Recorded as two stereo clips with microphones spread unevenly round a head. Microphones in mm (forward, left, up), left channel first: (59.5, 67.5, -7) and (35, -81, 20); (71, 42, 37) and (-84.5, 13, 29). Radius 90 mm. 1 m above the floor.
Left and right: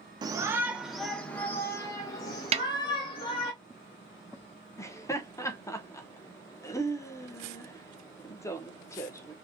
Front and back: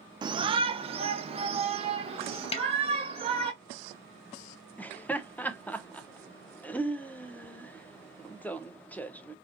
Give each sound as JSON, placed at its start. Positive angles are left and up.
{"t": 0.2, "sound": "a shout", "azimuth_deg": -160, "distance_m": 0.8}
{"t": 2.5, "sound": "a snare drum", "azimuth_deg": -50, "distance_m": 0.7}
{"t": 4.8, "sound": "laughter", "azimuth_deg": 85, "distance_m": 0.9}